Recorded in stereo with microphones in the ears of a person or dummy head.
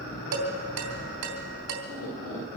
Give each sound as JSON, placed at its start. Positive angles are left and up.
{"t": 0.3, "sound": "dishes clattering", "side_deg": -85, "distance_m": 3.0}